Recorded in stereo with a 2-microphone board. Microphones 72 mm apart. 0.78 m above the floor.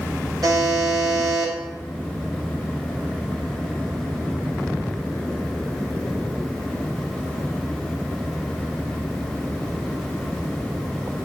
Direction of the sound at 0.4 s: 55° right (ahead or behind).